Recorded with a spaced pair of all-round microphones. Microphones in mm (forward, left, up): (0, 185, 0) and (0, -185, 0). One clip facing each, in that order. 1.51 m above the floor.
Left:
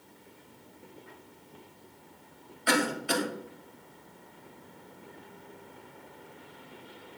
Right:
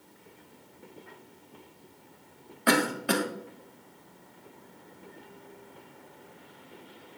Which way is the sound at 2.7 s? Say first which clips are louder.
Right 3 dB; 70° right (ahead or behind).